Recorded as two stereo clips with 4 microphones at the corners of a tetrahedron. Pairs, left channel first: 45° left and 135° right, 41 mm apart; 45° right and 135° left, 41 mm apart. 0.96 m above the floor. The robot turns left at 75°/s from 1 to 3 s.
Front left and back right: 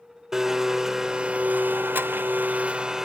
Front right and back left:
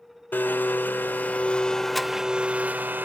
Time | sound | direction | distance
0.3 | a blender | 60° right | 0.9 m